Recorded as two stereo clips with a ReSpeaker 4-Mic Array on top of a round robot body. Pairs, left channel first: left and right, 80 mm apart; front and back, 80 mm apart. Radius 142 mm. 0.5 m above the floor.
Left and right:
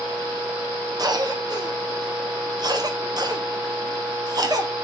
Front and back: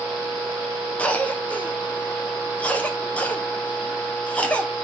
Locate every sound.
1.0 s a cough: 70° right, 1.7 m